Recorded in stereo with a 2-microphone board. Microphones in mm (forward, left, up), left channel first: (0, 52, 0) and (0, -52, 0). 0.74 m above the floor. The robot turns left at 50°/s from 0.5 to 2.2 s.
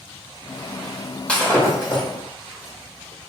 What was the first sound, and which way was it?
Breaking glass, 170° left.